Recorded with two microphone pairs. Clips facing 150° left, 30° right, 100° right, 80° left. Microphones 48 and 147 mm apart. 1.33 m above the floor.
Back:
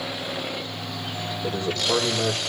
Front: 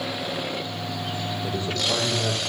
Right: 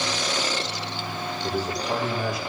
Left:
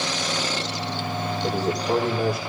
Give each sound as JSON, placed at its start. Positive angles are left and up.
{"t": 1.4, "sound": "a man speaking", "azimuth_deg": 100, "distance_m": 6.0}